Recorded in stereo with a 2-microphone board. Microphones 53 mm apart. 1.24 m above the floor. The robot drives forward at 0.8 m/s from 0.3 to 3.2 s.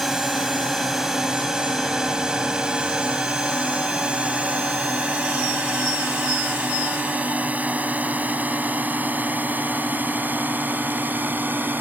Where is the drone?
5° right (ahead or behind); by 11.8 s 35° right (ahead or behind).